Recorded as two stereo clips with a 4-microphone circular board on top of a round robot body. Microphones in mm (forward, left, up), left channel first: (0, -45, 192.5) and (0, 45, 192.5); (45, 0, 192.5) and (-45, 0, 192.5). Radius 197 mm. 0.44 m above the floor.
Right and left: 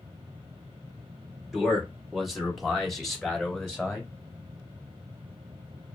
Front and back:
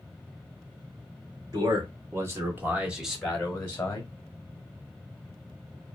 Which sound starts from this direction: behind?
A man speaking, at 1.5 s.